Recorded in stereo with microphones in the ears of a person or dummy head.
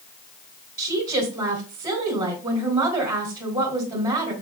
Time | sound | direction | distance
0.8 | a woman speaking | 15° right (ahead or behind) | 1.9 m